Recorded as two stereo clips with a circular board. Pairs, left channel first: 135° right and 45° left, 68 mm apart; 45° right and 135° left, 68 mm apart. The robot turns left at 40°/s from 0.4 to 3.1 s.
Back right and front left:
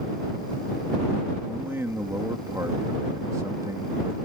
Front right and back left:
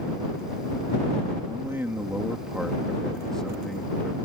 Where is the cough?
No cough in this recording.